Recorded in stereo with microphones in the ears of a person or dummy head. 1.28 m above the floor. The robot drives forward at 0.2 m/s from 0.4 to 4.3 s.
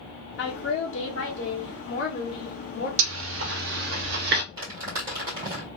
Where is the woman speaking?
80° left, 1.2 m; by 2.9 s 65° left (ahead or behind), 1.4 m.